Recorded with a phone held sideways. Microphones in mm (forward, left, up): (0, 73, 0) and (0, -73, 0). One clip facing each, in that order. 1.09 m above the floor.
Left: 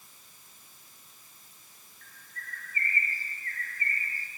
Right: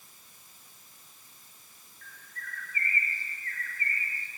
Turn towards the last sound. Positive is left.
turn(degrees=40)  # may be behind; listen again after turning